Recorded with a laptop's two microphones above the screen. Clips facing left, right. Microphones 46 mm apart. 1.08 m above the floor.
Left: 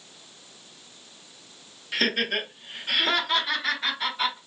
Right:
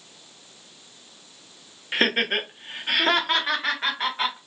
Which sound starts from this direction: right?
Laughter, at 1.9 s.